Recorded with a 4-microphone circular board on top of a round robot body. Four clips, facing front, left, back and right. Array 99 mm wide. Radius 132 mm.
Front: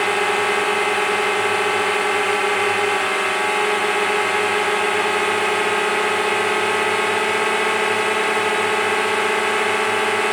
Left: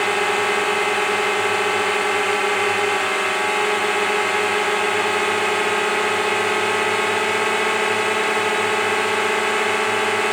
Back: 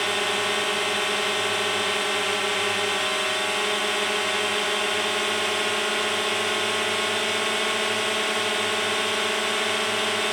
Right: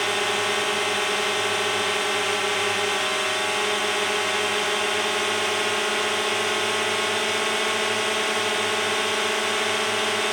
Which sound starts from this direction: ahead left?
A drone, at 0.0 s.